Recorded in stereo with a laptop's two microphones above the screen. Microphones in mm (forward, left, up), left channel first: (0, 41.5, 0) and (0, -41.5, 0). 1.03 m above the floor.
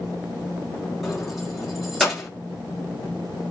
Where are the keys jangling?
Centre (ahead or behind), 1.1 m.